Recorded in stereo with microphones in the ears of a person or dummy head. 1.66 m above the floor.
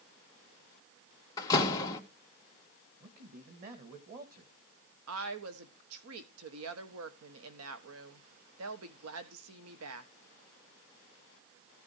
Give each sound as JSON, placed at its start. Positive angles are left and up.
{"t": 1.4, "sound": "a door slam", "side_deg": 20, "distance_m": 2.0}
{"t": 3.0, "sound": "a man speaking", "side_deg": -45, "distance_m": 2.0}
{"t": 5.1, "sound": "a woman speaking", "side_deg": -85, "distance_m": 1.4}